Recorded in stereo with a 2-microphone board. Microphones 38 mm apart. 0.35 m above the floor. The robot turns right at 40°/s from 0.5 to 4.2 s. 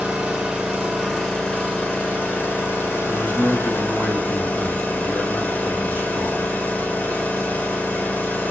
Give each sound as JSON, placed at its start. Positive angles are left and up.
{"t": 0.0, "sound": "an engine running", "azimuth_deg": -25, "distance_m": 1.8}
{"t": 3.1, "sound": "a man speaking", "azimuth_deg": 45, "distance_m": 2.5}